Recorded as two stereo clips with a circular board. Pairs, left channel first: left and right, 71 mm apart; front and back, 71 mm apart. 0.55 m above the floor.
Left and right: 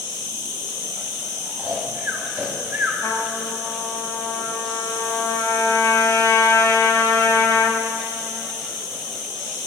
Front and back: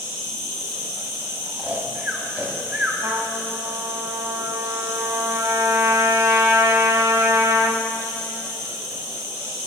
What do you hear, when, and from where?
0.0 s an insect: 85° left, 3 m
1.6 s snoring: 135° right, 1.1 m
3.0 s a trumpet: 140° left, 0.8 m